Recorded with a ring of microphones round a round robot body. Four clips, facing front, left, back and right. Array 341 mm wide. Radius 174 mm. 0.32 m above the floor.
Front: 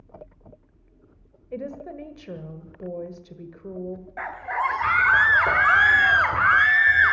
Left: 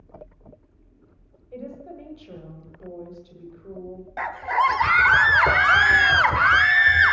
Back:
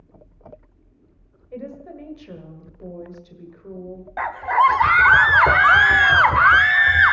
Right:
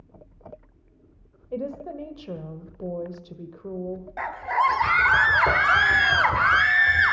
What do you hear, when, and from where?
1.5 s a woman speaking: 65° right, 1.8 m
4.2 s a scream: 165° left, 1.3 m